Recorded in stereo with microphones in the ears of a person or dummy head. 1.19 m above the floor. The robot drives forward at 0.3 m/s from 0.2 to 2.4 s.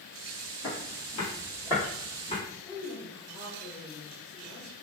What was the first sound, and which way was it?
Footsteps, 25° left (ahead or behind).